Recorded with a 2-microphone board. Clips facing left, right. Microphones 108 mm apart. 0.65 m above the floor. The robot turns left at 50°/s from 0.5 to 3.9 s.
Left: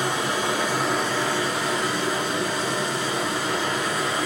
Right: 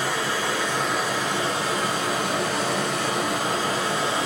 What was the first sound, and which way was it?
Running water, 15° left.